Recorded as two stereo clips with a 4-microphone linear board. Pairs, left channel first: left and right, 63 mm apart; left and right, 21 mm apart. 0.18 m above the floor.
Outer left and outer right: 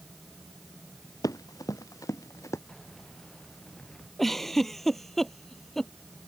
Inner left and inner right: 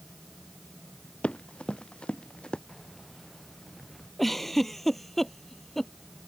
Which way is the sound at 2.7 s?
10° left (ahead or behind).